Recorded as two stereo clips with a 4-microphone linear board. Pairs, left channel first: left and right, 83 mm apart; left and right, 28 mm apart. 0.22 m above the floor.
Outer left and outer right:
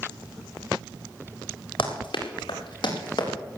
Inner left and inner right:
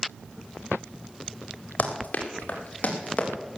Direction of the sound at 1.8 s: 90° left.